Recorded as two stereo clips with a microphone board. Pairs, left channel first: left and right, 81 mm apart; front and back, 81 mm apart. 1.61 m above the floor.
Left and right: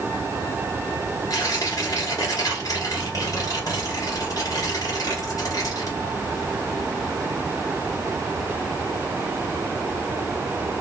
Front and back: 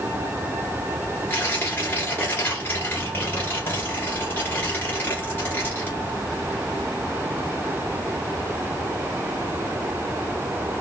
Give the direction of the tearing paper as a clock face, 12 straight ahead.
10 o'clock.